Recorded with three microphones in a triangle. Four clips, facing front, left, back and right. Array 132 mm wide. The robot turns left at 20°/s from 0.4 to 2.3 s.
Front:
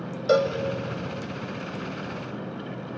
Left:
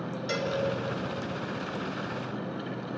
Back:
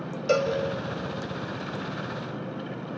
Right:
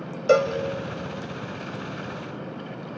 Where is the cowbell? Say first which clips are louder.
Right 13 dB, front 3 dB; 70° right, 1.8 m; by 0.6 s 75° right, 1.8 m.